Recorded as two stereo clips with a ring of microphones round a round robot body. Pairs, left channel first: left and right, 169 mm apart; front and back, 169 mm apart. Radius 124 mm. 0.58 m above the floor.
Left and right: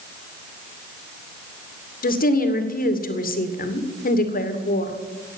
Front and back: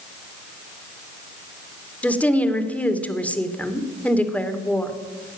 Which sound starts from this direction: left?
A woman speaking, at 2.0 s.